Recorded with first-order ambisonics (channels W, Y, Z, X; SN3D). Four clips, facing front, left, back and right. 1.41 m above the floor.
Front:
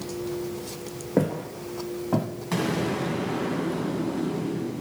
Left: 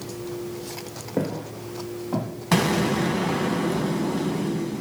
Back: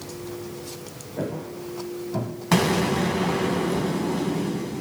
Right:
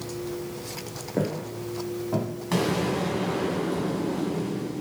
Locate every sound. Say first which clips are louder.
1.2 s footsteps: left 1 dB, front 5 dB; 5° left, 4.5 m
2.5 s an explosion: left 4 dB, back 5 dB; 140° left, 1.8 m